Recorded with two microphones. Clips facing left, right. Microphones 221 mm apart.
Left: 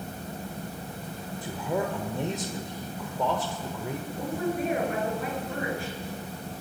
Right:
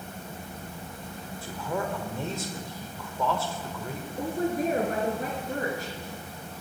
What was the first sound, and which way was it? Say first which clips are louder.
A man speaking: left 2 dB; 20° left (ahead or behind).